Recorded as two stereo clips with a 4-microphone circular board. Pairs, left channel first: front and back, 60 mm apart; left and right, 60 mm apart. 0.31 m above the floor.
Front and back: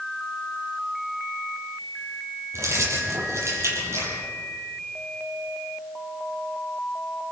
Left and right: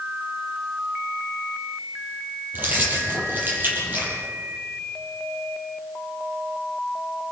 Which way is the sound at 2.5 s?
145° right.